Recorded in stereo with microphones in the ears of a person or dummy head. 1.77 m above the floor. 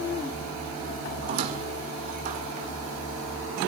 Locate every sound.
1.2 s a squeak: 40° right (ahead or behind), 1.7 m